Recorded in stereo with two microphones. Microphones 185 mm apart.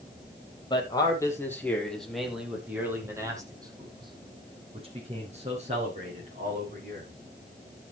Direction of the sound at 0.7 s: 25° left (ahead or behind).